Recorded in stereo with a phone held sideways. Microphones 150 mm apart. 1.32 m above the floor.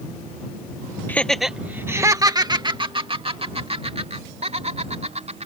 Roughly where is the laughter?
Centre.